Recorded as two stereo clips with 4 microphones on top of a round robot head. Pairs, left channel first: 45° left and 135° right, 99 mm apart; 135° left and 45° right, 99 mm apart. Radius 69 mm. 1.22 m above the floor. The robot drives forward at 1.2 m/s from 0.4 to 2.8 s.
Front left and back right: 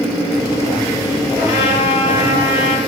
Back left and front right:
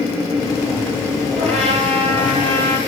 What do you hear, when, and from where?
1.4 s a trumpet: 65° right, 7 m; by 2.8 s 80° right, 6.5 m